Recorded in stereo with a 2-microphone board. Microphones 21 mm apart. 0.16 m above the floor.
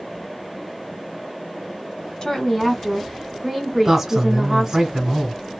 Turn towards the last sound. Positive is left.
turn(degrees=-25)  # may be behind; listen again after turning